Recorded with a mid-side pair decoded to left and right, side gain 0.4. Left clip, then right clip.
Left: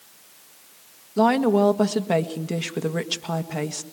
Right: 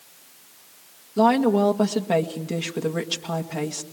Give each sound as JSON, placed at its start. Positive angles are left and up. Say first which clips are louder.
{"t": 1.2, "sound": "a woman speaking", "louder": "even", "azimuth_deg": 15, "distance_m": 1.8}